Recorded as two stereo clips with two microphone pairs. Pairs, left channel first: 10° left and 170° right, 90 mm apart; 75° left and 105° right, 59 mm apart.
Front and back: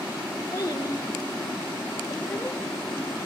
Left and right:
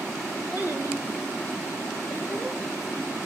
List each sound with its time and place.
0.5 s a child speaking: 40° right, 2.5 m; by 3.2 s 75° right, 3.5 m